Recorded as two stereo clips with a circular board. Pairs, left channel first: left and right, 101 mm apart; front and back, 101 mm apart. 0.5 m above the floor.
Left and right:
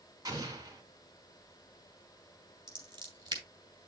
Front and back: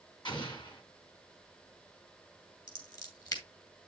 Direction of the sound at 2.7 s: 45° right.